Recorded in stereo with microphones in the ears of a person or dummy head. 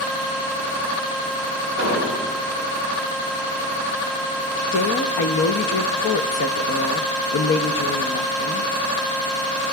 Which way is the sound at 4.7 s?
65° left (ahead or behind).